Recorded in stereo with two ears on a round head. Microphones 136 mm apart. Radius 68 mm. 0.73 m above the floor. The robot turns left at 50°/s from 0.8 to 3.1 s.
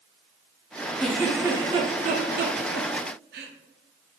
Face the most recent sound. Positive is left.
turn(degrees=-75)  # may be behind; listen again after turning